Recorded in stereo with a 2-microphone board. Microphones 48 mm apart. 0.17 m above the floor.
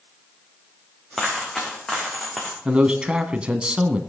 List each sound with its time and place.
1.1 s a dropped coin: 15° left (ahead or behind), 4.5 m
2.6 s a man speaking: 20° right (ahead or behind), 1.1 m